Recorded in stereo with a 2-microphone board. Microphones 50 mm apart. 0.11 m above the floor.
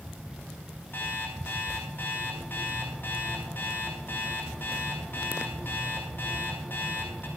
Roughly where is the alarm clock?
Left.